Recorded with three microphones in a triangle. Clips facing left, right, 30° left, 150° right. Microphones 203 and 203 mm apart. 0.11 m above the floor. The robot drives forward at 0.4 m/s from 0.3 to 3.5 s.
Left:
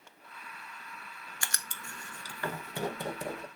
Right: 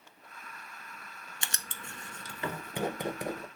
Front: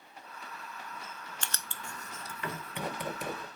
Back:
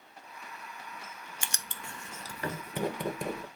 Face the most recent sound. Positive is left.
turn(degrees=-165)